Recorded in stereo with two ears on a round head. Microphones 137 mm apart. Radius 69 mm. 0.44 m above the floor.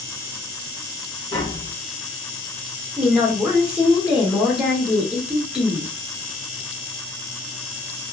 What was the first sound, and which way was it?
Tapping, 20° left (ahead or behind).